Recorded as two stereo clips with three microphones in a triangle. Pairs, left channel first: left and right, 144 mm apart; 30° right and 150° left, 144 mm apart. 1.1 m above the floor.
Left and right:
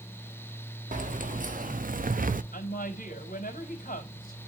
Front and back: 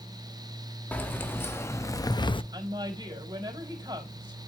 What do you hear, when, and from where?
0.9 s keys jangling: 105° right, 1.5 m; by 2.4 s 80° right, 0.6 m
2.5 s a woman speaking: 90° left, 3.5 m